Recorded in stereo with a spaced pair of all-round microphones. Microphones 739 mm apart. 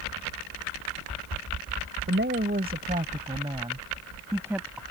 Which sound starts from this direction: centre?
A woman speaking, at 2.1 s.